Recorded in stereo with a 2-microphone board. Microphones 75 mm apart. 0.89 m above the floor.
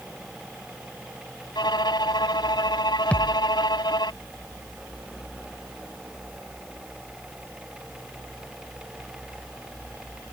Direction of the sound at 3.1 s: 15° left (ahead or behind).